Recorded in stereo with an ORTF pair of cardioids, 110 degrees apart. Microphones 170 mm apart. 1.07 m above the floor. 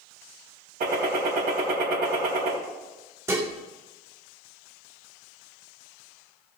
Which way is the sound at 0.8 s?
65° right.